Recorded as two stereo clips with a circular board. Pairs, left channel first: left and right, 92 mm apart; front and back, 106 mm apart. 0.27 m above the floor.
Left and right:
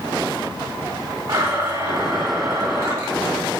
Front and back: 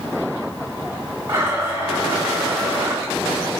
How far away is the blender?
About 2.5 m.